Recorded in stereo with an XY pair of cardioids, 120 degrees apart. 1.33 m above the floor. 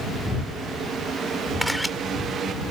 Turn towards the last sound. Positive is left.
turn(degrees=0)